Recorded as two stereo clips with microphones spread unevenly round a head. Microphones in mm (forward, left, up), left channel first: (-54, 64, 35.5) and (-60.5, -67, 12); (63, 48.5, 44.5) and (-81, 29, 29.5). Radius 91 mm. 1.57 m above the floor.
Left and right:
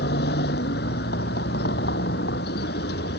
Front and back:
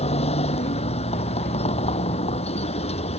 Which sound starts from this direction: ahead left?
A vehicle, at 0.0 s.